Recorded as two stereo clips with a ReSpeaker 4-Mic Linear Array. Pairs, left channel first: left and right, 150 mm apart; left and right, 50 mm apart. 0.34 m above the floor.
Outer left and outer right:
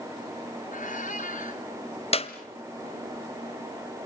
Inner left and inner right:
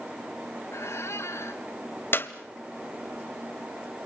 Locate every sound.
0.7 s a squeak: 65° left (ahead or behind), 1.7 m
2.1 s a clap: 45° left (ahead or behind), 1.2 m